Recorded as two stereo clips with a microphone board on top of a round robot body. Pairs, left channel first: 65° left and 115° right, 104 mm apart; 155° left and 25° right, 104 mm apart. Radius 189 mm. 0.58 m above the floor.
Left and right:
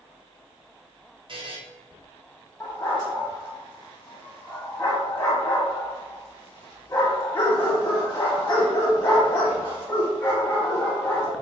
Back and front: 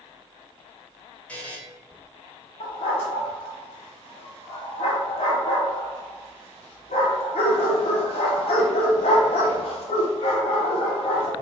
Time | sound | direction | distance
1.3 | a buzzer | 125° right | 1.1 m
2.6 | a dog barking | 135° left | 0.5 m